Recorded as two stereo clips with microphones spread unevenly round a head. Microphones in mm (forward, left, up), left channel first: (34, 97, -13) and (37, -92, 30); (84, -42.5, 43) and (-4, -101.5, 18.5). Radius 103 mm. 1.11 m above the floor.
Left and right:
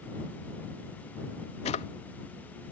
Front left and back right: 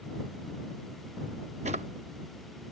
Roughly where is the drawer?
Behind left.